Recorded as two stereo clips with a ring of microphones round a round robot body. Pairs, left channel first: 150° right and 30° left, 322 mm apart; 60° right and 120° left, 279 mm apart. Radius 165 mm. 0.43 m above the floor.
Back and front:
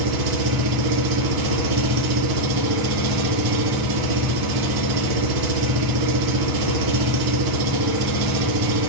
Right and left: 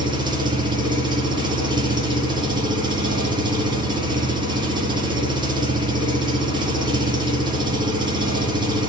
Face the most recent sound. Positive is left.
turn(degrees=45)